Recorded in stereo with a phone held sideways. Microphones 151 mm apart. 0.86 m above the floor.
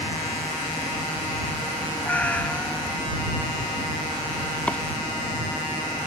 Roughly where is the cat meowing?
Centre.